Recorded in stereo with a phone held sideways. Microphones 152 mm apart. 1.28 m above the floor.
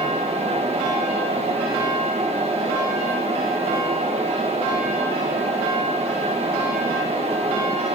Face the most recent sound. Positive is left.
turn(degrees=-45)  # may be behind; listen again after turning